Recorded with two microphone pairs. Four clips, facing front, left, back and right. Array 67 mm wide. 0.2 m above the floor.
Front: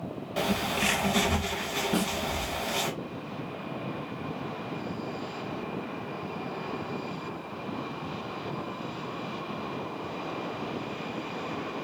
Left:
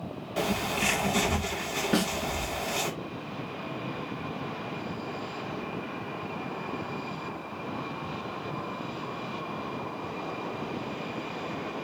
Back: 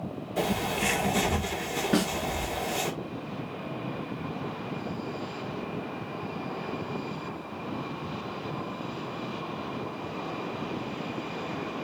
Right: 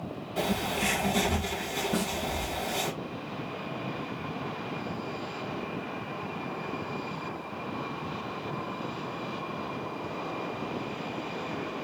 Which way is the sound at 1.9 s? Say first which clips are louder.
Left 5 dB, back 4 dB; 125° left.